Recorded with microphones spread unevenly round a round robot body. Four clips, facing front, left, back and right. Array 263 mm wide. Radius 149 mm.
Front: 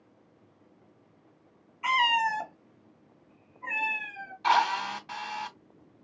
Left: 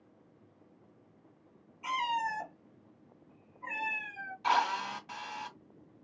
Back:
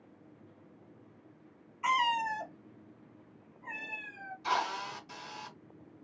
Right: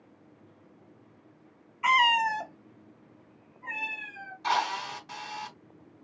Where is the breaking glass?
No breaking glass in this recording.